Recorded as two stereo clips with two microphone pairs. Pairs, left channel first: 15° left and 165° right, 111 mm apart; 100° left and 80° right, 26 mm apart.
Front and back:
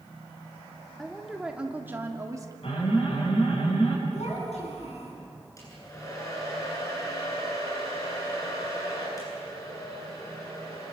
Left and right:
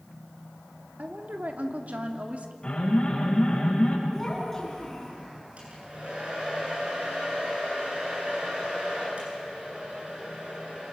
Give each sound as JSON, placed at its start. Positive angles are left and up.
{"t": 1.0, "sound": "a woman speaking", "azimuth_deg": -70, "distance_m": 3.0}
{"t": 2.6, "sound": "an alarm", "azimuth_deg": 50, "distance_m": 6.5}
{"t": 4.1, "sound": "a child speaking", "azimuth_deg": 25, "distance_m": 9.0}
{"t": 5.6, "sound": "a hair dryer", "azimuth_deg": -40, "distance_m": 9.5}